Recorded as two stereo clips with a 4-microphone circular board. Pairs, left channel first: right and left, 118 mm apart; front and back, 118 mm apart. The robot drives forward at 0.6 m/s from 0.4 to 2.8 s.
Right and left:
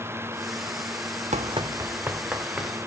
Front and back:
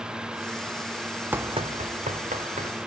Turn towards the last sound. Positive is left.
turn(degrees=175)